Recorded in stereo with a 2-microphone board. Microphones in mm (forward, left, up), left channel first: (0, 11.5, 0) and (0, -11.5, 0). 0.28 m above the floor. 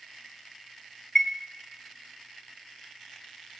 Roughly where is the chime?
Centre.